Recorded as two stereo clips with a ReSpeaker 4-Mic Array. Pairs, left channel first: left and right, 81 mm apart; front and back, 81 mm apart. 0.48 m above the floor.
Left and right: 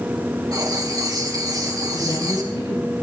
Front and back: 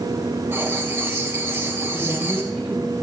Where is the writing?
120° right, 2 m.